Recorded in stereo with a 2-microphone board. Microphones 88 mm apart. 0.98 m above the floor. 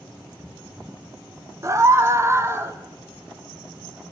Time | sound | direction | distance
1.6 | a scream | 30° right (ahead or behind) | 1.2 m